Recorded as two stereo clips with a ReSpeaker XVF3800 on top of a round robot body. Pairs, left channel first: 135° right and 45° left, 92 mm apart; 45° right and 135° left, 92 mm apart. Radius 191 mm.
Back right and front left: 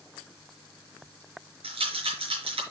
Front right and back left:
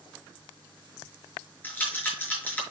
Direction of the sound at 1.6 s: 30° left.